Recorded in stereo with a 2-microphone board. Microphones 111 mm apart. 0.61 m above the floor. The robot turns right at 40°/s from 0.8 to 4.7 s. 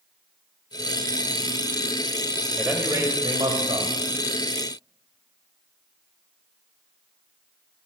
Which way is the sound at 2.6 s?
165° right.